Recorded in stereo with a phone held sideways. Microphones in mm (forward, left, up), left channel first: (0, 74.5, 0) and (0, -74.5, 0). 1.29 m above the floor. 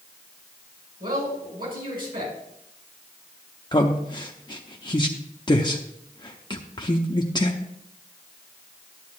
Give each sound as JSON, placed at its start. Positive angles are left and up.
{"t": 1.0, "sound": "a man speaking", "side_deg": -70, "distance_m": 5.5}
{"t": 3.7, "sound": "a man speaking", "side_deg": 30, "distance_m": 0.6}